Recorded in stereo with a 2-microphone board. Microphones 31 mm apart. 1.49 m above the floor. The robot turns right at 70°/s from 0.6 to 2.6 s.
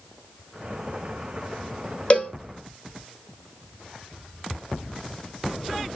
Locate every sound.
2.1 s a cowbell: 45° left (ahead or behind), 1.1 m; by 2.3 s 55° left (ahead or behind), 1.1 m